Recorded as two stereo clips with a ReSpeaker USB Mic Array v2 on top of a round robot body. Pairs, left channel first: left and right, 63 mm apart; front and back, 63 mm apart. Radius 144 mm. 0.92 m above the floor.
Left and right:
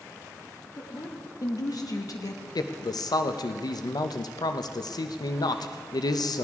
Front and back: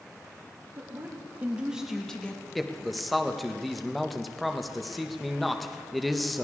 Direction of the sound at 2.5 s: 90° left.